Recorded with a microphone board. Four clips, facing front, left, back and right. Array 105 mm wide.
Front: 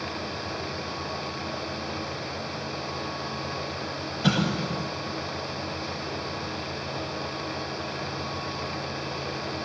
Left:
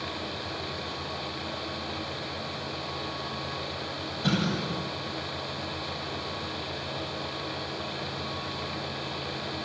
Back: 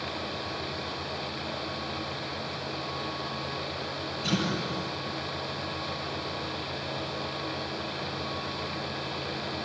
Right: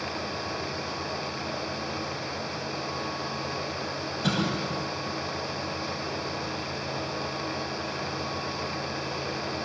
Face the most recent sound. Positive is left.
turn(degrees=-10)